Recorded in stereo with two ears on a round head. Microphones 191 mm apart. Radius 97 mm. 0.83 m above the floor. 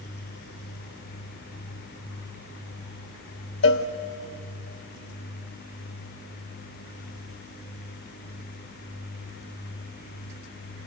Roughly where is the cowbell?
Left.